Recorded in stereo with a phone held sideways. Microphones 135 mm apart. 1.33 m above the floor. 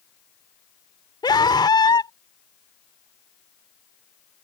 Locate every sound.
1.2 s a scream: 35° left (ahead or behind)